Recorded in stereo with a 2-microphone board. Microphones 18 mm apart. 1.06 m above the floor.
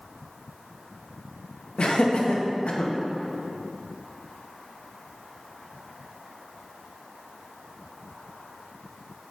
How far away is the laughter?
About 1.1 m.